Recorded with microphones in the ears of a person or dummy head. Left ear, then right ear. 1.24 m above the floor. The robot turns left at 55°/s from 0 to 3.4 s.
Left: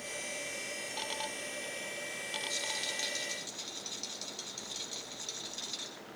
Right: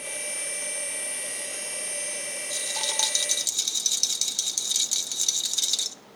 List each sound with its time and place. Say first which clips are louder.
2.5 s a rattle: right 10 dB; straight ahead, 2 m; by 6.0 s 50° right, 2 m